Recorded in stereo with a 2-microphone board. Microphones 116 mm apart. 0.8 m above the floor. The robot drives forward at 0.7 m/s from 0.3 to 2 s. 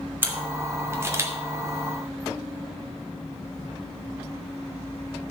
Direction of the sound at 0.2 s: 20° right (ahead or behind).